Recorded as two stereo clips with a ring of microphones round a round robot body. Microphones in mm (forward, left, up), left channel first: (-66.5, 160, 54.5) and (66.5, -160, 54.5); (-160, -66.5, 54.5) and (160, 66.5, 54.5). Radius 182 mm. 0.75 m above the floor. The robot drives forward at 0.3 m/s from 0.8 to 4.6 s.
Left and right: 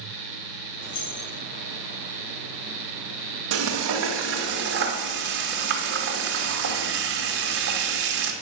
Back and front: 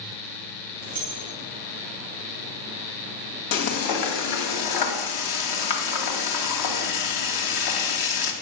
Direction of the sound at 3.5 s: 120° right.